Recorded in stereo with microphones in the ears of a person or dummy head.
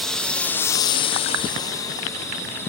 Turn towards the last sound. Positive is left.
turn(degrees=15)  # may be behind; listen again after turning